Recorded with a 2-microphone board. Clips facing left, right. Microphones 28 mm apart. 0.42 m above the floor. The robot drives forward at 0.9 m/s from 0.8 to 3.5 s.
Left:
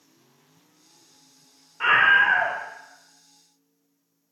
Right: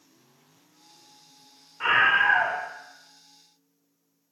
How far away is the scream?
About 0.8 m.